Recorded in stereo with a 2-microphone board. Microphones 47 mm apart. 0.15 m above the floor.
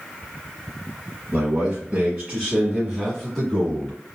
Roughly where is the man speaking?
Right.